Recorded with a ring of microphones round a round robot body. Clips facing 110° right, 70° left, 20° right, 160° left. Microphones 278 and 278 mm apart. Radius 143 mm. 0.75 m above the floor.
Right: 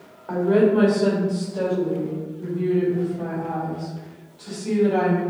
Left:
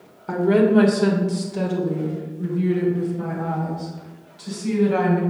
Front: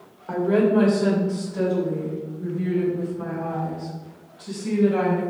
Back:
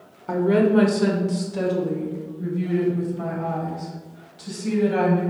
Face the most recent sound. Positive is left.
turn(degrees=135)